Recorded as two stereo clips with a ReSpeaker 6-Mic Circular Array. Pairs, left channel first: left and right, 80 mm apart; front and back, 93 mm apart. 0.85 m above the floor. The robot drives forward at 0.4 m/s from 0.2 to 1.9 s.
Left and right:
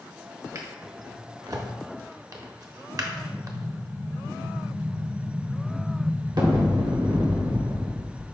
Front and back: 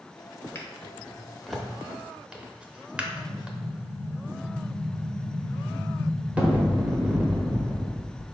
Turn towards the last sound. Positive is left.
turn(degrees=-105)